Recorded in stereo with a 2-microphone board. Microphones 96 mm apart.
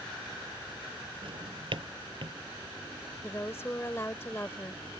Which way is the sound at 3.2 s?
25° left (ahead or behind).